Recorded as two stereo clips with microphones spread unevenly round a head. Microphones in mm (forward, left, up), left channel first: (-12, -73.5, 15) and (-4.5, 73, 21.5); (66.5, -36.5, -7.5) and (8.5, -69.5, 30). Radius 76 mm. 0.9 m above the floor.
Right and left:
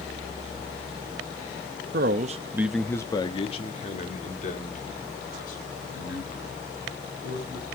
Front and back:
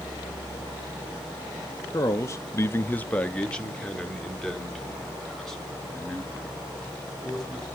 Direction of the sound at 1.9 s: 70° left.